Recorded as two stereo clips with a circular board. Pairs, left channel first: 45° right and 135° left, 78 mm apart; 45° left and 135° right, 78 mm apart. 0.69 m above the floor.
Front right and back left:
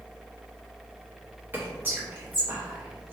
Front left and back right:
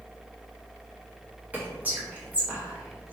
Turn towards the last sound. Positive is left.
turn(degrees=175)